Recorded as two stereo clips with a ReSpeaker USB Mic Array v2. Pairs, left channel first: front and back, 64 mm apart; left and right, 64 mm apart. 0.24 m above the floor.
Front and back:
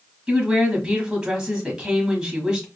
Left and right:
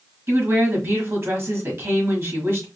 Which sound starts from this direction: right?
A woman speaking, at 0.3 s.